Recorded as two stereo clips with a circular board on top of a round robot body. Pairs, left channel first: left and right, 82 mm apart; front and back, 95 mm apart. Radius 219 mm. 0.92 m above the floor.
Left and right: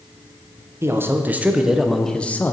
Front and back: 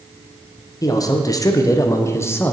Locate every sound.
0.8 s a man speaking: 40° right, 1.2 m; by 2.5 s 50° left, 1.0 m